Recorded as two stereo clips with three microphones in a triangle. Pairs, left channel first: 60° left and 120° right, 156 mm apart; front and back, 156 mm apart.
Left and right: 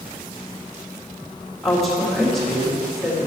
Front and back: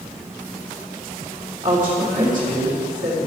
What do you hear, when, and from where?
1.6 s a woman speaking: 150° left, 3.5 m